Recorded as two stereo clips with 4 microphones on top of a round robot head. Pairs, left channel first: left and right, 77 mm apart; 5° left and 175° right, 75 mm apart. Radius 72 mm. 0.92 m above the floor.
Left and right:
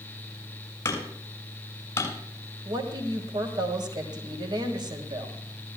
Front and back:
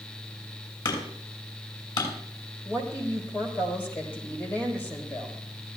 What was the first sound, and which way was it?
Hammering, 35° left.